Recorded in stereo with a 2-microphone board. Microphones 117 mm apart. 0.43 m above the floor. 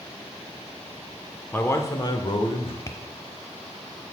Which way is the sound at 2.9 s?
30° left (ahead or behind).